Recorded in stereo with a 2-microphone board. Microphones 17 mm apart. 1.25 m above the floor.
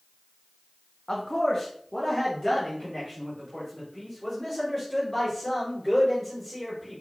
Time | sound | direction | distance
1.1 | a man speaking | 35° left (ahead or behind) | 0.6 m